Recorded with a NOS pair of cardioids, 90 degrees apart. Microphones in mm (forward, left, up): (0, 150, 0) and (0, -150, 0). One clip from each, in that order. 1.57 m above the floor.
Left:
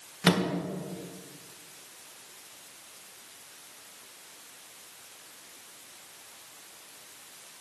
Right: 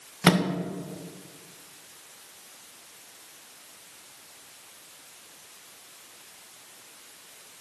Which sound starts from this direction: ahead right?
A microwave, at 0.2 s.